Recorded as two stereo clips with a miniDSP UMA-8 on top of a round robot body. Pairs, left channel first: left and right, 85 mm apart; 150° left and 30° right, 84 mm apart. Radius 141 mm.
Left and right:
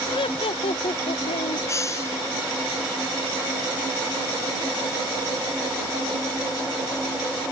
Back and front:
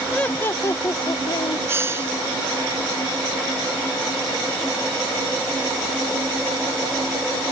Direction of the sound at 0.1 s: 70° left.